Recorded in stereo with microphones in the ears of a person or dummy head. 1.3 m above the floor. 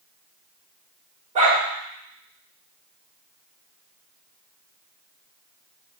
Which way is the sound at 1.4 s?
35° right (ahead or behind).